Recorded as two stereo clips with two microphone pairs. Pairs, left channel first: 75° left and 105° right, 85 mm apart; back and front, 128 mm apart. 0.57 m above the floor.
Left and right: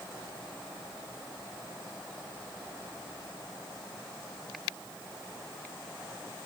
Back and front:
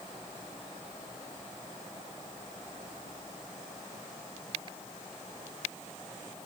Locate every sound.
Only background noise.